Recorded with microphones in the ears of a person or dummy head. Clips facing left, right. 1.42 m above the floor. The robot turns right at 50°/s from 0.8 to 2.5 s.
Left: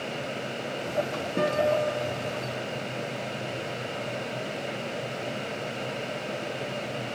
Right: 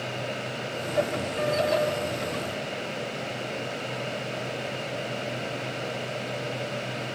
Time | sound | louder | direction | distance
1.4 | a guitar | left 1 dB | 50° left (ahead or behind) | 5 m